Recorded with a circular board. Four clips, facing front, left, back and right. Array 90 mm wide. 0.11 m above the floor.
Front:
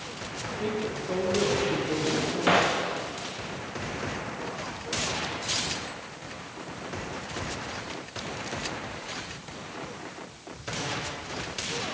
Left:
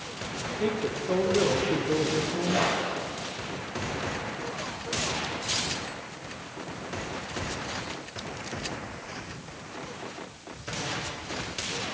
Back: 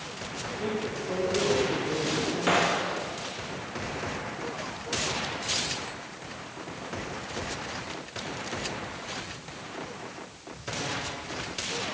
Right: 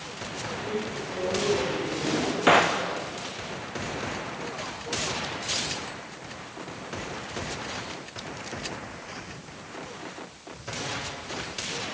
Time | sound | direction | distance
0.5 | a woman speaking | 85° left | 8 m
2.0 | a drawer | 85° right | 4 m